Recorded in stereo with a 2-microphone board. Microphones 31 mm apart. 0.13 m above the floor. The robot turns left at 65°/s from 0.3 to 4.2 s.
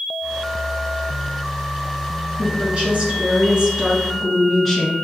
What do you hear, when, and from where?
2.4 s a woman speaking: 65° right, 1.5 m; by 5.0 s straight behind, 1.5 m